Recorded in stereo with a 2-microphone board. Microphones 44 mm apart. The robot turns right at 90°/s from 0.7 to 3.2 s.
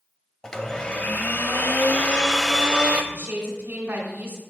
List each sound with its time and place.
0.4 s a blender: 20° left, 0.6 m; by 3.0 s 130° right, 0.6 m
3.1 s a woman speaking: 60° right (ahead or behind), 2 m